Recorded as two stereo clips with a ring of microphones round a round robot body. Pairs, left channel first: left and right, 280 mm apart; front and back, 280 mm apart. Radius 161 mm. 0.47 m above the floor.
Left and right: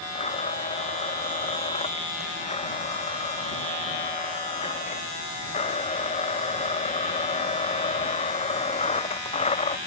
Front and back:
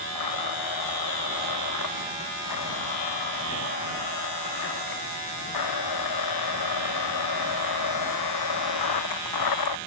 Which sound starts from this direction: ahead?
A blender, at 0.1 s.